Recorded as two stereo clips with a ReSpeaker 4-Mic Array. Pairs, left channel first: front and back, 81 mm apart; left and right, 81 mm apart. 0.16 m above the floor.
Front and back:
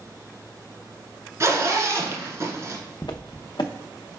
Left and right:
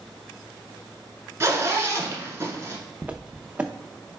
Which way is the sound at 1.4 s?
140° right.